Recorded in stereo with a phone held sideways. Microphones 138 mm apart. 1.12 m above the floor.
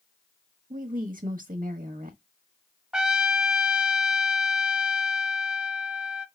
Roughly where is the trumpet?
Centre.